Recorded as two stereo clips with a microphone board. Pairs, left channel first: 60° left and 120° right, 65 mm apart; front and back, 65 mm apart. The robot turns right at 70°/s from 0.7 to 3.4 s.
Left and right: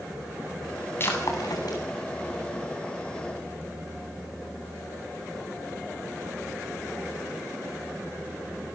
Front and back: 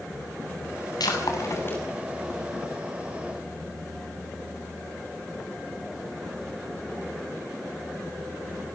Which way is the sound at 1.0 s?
5° left.